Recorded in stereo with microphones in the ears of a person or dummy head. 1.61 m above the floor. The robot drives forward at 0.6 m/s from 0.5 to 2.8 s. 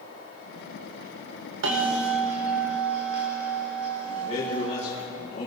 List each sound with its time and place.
1.6 s a bell: 65° right (ahead or behind), 2.5 m; by 5.0 s 55° right (ahead or behind), 2.5 m
4.0 s a man speaking: 35° left (ahead or behind), 5.5 m